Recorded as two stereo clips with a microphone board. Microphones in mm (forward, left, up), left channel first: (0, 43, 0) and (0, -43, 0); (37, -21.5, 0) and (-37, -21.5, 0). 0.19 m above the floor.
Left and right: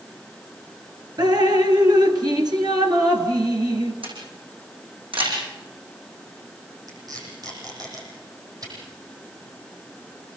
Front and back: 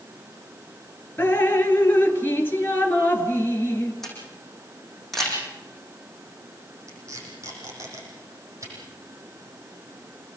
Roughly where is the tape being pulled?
Behind right.